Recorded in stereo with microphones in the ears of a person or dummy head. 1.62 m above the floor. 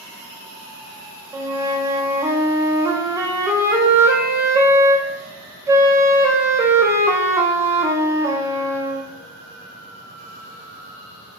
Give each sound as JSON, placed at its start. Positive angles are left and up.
{"t": 1.3, "sound": "a flute", "side_deg": -15, "distance_m": 0.5}